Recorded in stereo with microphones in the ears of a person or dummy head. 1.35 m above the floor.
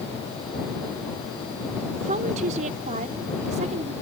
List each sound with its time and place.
2.0 s a woman speaking: 40° right (ahead or behind)